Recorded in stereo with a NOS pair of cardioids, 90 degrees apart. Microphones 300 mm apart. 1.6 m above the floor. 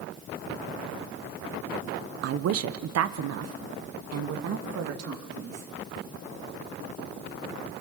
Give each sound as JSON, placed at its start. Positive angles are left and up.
{"t": 2.2, "sound": "a woman speaking", "azimuth_deg": -55, "distance_m": 0.8}